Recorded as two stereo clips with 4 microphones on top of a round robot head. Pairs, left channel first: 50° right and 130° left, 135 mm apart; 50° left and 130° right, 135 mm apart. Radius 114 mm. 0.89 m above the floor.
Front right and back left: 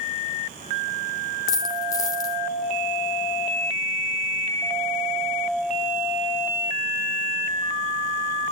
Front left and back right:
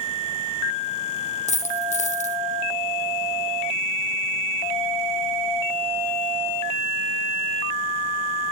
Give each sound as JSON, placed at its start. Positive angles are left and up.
{"t": 1.5, "sound": "a dropped coin", "azimuth_deg": 15, "distance_m": 0.5}